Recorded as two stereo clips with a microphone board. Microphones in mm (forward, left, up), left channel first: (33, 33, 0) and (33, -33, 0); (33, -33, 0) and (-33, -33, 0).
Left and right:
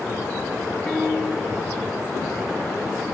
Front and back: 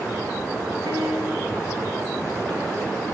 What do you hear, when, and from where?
0.9 s a piano: 160° left, 4 m